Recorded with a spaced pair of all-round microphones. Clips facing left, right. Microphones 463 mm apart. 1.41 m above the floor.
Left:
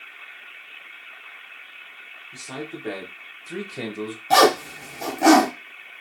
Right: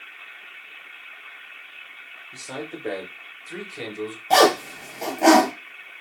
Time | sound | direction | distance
2.3 | a man speaking | 10° left (ahead or behind) | 1.0 m
4.3 | a zipper | 30° left (ahead or behind) | 0.8 m